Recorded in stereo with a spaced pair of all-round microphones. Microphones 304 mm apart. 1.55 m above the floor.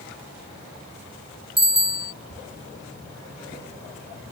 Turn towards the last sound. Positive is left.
turn(degrees=-20)  # may be behind; listen again after turning